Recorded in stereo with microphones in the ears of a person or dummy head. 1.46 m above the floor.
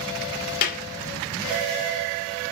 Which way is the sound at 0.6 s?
45° left (ahead or behind).